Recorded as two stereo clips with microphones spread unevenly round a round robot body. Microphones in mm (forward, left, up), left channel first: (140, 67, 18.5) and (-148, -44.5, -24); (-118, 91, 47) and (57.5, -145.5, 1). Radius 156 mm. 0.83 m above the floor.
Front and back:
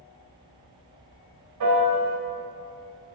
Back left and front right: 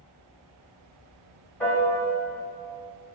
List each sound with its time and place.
1.6 s a piano: 145° right, 1.8 m